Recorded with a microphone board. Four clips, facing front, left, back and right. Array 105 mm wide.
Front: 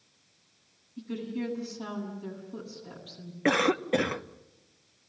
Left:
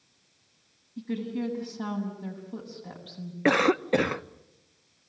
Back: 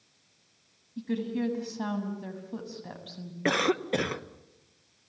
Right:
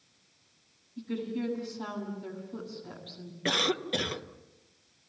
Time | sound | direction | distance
1.0 | a woman speaking | 155° left | 7.5 m
3.5 | a cough | 85° left | 0.8 m